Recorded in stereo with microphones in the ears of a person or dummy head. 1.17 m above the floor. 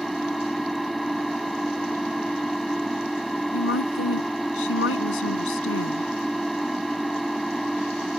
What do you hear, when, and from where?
0.0 s an engine running: centre (ahead or behind)
3.5 s a woman speaking: 85° left